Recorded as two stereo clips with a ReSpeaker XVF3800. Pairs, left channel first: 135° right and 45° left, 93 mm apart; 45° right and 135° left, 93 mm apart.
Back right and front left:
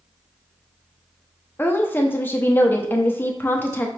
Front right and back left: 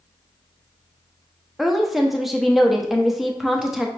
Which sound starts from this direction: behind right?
A woman speaking, at 1.6 s.